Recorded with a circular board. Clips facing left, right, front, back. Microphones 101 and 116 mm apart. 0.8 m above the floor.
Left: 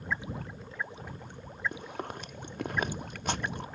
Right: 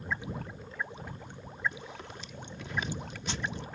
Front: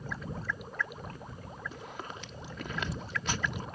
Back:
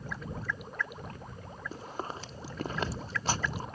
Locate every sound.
1.7 s chewing: 125° left